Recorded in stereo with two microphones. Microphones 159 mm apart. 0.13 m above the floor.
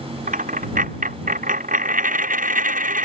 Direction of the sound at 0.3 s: 55° right (ahead or behind).